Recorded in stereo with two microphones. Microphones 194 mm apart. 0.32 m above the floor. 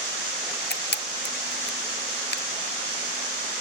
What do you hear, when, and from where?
0.7 s a camera shutter: 60° left (ahead or behind), 0.8 m